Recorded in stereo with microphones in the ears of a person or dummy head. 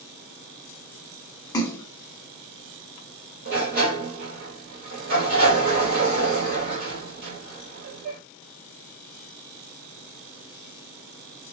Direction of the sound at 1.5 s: 25° left (ahead or behind).